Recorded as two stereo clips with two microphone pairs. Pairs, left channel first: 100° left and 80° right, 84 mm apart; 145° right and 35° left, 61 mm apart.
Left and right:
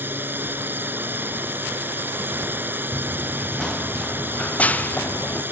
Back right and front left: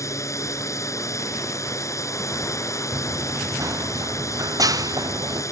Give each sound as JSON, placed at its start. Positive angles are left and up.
{"t": 0.0, "sound": "a drone", "azimuth_deg": -145}
{"t": 2.9, "sound": "running footsteps", "azimuth_deg": 0}